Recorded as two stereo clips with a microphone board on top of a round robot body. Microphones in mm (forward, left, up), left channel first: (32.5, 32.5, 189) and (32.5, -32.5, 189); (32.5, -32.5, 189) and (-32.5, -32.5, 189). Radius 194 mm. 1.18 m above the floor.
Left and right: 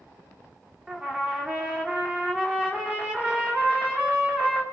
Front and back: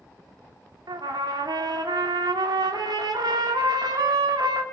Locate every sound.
0.9 s a trumpet: 165° right, 2.5 m